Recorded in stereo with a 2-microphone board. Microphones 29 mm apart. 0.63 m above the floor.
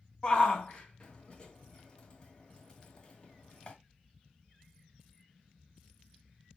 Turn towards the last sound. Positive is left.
turn(degrees=30)  # may be behind; listen again after turning